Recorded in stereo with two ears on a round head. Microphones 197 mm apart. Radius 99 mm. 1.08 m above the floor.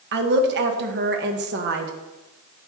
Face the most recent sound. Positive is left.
turn(degrees=-50)  # may be behind; listen again after turning